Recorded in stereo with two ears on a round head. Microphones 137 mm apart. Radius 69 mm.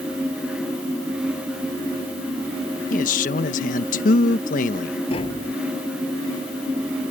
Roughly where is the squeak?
No squeak in this recording.